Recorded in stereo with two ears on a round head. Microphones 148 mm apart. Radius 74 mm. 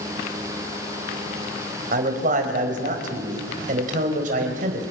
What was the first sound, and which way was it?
A man speaking, 50° right (ahead or behind).